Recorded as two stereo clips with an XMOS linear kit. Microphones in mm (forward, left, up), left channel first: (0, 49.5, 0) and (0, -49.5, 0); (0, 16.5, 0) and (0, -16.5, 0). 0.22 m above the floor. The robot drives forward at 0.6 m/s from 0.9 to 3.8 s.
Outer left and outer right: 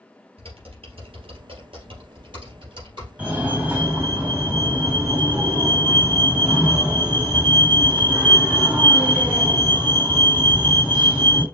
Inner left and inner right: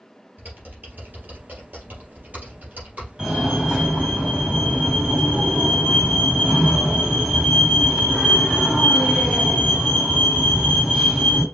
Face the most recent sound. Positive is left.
turn(degrees=-15)  # may be behind; listen again after turning